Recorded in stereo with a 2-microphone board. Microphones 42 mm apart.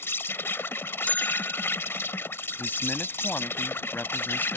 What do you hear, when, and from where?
0.0 s an insect: 80° left
1.1 s a bell: 45° left (ahead or behind)
2.6 s a man speaking: 50° left (ahead or behind)